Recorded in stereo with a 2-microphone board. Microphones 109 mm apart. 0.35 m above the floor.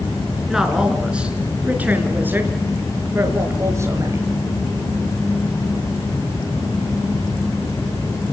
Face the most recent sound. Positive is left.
turn(degrees=-30)  # may be behind; listen again after turning